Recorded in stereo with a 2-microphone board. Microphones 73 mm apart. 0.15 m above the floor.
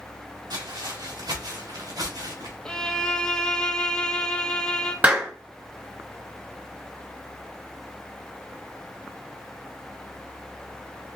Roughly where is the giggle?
No giggle in this recording.